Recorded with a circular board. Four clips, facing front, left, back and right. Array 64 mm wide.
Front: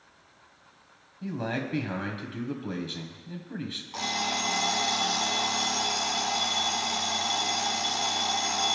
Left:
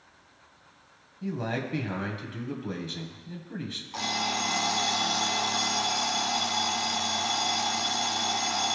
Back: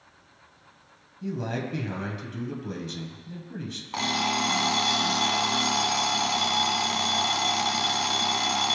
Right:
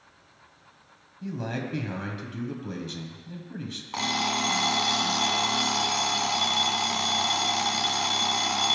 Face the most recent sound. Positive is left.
turn(degrees=-140)